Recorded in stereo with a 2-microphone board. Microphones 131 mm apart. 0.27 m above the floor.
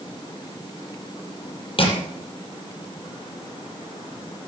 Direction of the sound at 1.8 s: 45° left (ahead or behind).